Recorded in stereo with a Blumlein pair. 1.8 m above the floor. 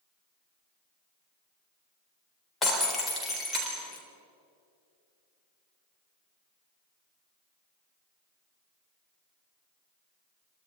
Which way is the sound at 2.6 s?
15° left.